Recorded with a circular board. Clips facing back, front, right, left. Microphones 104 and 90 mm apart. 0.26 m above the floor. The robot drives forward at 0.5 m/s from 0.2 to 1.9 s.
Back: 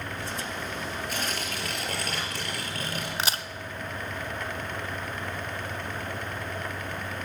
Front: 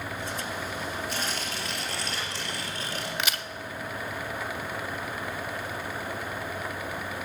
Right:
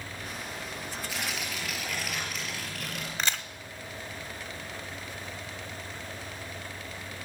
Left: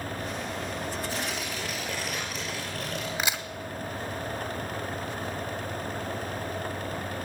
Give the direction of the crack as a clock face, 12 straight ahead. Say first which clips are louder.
Back 3 dB, right 1 dB; 7 o'clock.